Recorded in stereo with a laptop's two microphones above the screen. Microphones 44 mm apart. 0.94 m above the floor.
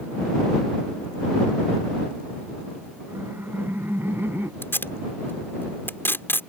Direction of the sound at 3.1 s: 60° right (ahead or behind).